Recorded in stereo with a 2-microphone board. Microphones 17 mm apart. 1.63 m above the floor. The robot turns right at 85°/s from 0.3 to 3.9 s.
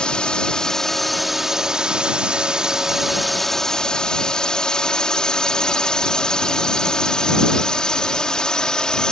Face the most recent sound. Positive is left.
turn(degrees=55)